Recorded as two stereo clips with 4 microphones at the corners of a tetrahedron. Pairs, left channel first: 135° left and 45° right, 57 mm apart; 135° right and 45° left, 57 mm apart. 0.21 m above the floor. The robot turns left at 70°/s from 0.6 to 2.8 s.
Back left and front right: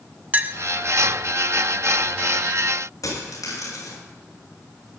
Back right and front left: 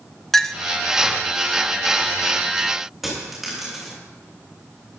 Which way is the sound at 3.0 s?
130° left.